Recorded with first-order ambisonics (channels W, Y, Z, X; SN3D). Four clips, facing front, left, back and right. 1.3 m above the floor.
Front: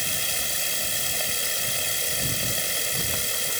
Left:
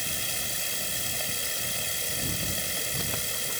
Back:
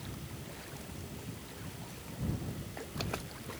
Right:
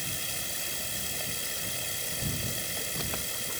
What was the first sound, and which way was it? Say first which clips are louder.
Running water: left 3 dB, front 18 dB; 10° left.